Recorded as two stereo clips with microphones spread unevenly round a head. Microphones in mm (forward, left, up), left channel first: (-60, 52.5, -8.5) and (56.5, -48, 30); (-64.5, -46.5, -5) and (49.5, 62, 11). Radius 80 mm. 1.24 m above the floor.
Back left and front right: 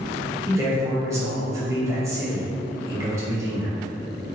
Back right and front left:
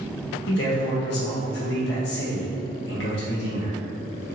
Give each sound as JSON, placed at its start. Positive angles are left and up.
{"t": 0.5, "sound": "a man speaking", "azimuth_deg": -115, "distance_m": 1.2}